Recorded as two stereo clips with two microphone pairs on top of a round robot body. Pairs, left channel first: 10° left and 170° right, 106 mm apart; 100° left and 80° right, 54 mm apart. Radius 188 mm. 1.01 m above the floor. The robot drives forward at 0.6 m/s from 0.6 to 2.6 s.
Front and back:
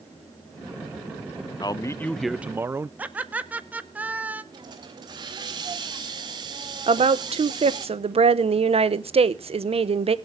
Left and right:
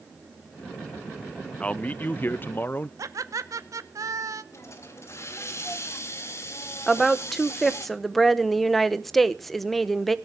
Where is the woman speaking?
170° right, 1.0 m.